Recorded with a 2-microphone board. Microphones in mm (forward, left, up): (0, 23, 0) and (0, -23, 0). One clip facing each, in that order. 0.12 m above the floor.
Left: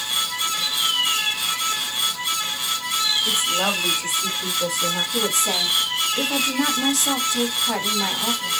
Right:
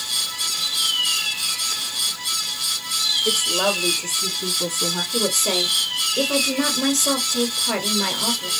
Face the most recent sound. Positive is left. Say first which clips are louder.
# even
turn(degrees=-45)  # may be behind; listen again after turning